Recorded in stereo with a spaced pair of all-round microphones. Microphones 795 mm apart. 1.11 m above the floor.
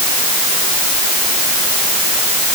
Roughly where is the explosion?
I don't hear an explosion.